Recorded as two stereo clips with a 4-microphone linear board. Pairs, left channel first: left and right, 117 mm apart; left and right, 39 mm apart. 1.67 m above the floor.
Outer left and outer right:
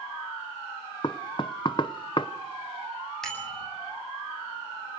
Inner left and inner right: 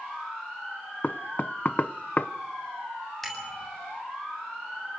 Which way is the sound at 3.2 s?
5° left (ahead or behind).